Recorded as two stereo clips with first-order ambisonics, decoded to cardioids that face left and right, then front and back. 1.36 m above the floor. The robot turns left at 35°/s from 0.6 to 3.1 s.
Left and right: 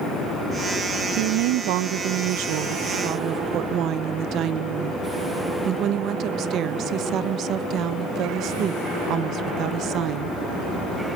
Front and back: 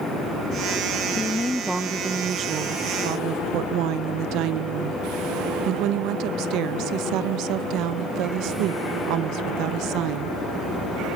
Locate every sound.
1.2 s a woman speaking: 75° right, 1.0 m; by 10.4 s 145° right, 1.0 m